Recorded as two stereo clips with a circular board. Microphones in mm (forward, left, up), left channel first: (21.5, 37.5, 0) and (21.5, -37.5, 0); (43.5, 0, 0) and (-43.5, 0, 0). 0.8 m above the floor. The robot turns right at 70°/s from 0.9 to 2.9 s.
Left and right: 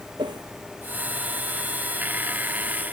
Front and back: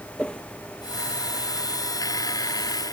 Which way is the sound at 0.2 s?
80° right.